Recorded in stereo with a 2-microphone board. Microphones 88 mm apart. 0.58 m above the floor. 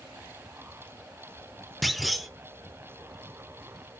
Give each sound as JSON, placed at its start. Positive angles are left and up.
{"t": 1.8, "sound": "a clunk", "side_deg": 0, "distance_m": 0.7}